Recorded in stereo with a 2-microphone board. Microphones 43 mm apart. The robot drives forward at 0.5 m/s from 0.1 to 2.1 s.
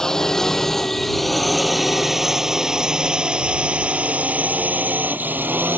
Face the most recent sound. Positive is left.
turn(degrees=-50)  # may be behind; listen again after turning